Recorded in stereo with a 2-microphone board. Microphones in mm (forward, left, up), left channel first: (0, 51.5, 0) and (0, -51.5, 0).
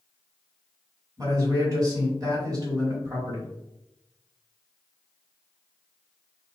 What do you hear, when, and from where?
1.2 s a man speaking: 35° right (ahead or behind), 1.4 m